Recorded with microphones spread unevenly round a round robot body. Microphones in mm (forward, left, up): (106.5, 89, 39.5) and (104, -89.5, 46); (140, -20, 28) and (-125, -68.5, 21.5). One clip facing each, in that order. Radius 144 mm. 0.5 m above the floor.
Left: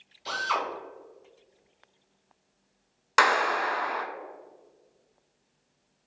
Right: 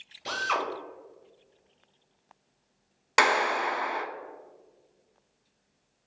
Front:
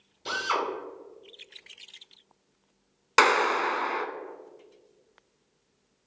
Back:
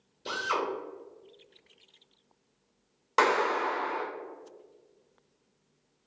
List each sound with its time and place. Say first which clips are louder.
0.2 s a drill: right 1 dB, front 1 dB; 75° right, 1.7 m
3.2 s a clap: even, front 2 dB; 30° right, 0.9 m